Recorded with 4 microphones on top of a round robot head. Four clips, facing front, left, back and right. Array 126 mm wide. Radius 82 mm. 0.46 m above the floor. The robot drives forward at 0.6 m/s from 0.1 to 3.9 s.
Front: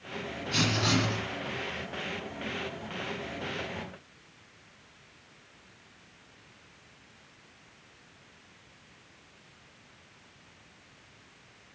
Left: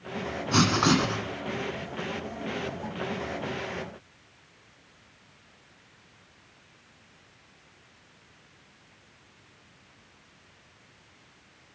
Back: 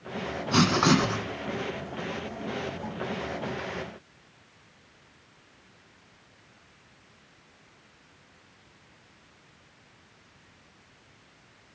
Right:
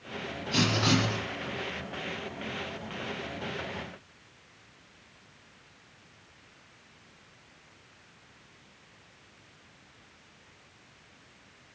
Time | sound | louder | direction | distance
0.5 | writing | left 4 dB, back 7 dB | 135° left | 1.5 m